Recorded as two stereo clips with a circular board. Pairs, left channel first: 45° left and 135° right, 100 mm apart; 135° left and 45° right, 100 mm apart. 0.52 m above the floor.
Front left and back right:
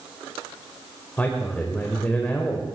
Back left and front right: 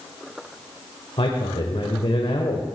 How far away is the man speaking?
About 1.7 m.